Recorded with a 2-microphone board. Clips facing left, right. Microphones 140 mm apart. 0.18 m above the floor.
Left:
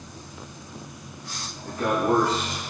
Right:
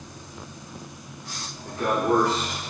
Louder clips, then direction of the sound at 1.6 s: Even; 25° left (ahead or behind).